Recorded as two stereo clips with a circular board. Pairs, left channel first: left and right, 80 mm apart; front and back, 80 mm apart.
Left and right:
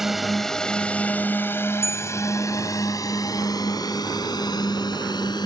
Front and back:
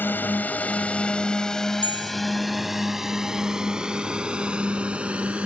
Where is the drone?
10° right; by 5.5 s 105° left.